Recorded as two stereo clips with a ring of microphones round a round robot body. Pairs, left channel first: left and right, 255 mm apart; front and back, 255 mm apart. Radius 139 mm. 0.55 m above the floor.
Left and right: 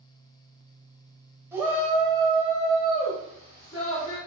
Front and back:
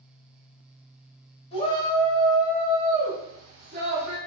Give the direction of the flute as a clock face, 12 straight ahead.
No flute in this recording.